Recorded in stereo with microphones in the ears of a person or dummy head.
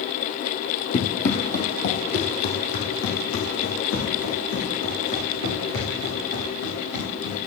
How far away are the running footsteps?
About 2 m.